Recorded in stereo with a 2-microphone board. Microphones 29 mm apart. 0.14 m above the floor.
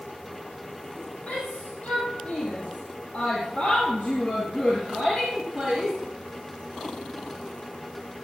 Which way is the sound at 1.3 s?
60° left (ahead or behind).